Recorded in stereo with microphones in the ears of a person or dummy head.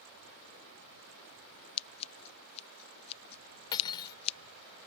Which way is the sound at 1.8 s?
30° left (ahead or behind).